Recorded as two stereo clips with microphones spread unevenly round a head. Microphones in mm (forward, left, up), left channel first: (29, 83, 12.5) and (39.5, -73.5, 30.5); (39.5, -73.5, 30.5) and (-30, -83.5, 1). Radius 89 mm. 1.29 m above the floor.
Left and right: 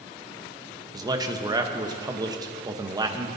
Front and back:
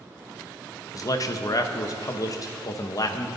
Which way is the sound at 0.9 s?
20° right.